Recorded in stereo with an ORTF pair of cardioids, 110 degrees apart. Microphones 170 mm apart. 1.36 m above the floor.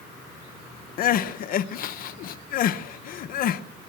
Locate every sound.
1.0 s crying: 60° left, 1.0 m